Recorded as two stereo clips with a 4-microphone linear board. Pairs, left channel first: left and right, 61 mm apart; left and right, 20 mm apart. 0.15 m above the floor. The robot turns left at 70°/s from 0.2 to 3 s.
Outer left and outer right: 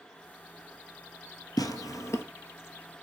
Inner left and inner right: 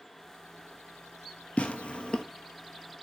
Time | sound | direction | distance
1.6 | tearing paper | 75° left (ahead or behind) | 0.8 m